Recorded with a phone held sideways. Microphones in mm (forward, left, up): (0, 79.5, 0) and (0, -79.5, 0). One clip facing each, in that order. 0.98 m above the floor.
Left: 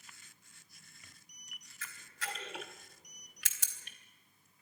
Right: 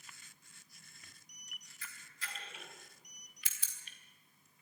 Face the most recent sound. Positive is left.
turn(degrees=80)